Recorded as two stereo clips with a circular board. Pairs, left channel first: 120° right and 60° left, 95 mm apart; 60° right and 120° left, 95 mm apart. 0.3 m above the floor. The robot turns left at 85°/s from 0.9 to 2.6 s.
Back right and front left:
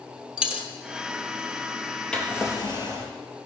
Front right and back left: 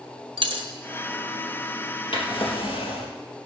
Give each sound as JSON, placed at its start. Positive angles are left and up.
{"t": 0.4, "sound": "a dropped coin", "azimuth_deg": 140, "distance_m": 1.5}
{"t": 2.1, "sound": "a drawer", "azimuth_deg": -35, "distance_m": 3.0}